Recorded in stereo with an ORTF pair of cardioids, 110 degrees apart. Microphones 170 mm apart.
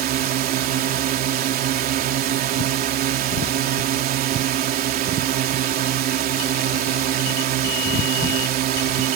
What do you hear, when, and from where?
0.0 s a drone: 65° right